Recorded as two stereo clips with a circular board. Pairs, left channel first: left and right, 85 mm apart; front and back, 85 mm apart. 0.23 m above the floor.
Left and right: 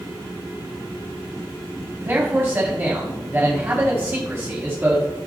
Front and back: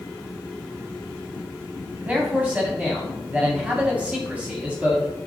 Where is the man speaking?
120° right, 1.5 m.